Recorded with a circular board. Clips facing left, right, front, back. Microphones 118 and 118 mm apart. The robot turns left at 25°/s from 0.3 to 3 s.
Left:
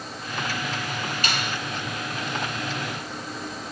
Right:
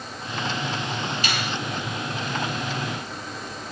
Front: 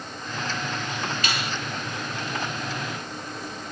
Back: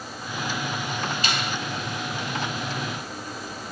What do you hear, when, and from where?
1.2 s a finger snap: 125° left, 3 m; by 1.5 s 115° left, 3 m